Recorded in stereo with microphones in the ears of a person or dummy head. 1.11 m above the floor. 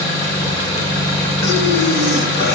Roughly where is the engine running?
Left.